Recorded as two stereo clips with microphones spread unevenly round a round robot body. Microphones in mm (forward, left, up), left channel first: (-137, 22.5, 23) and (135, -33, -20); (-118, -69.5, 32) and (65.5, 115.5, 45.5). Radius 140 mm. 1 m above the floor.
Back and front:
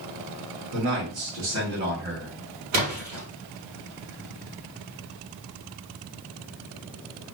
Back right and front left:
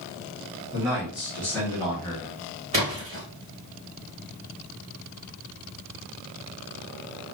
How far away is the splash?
About 1.7 m.